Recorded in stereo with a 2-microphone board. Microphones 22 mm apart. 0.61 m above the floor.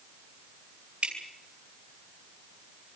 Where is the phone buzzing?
I don't hear a phone buzzing.